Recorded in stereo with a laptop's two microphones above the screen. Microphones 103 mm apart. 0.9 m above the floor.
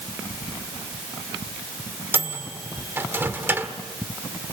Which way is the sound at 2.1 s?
20° right (ahead or behind).